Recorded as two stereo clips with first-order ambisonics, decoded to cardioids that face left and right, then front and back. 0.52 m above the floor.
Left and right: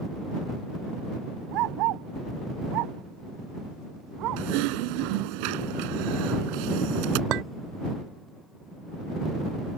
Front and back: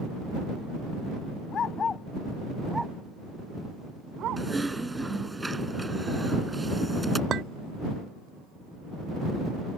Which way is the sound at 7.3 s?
125° right.